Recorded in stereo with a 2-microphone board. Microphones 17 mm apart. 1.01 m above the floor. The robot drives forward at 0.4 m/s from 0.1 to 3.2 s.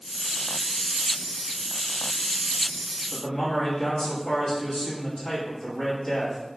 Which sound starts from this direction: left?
A man speaking, at 3.1 s.